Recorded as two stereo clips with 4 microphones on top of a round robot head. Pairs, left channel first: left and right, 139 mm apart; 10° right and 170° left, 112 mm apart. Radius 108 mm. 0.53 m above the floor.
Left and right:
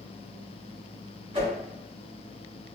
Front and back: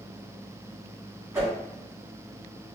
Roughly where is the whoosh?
Behind right.